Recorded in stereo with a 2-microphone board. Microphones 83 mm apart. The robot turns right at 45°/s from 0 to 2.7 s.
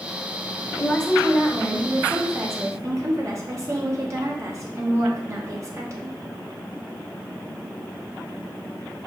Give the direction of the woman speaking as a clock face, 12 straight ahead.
7 o'clock.